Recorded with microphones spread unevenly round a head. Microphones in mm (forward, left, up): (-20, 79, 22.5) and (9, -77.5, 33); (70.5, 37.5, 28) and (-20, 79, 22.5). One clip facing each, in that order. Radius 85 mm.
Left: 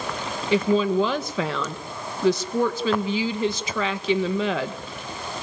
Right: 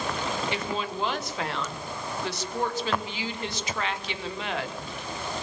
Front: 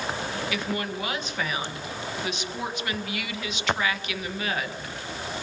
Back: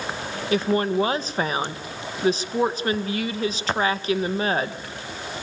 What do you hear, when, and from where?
0.5 s a woman speaking: 100° left, 1.6 m